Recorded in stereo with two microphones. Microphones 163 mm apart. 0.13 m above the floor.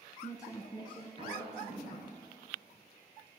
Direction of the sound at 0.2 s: 15° left (ahead or behind).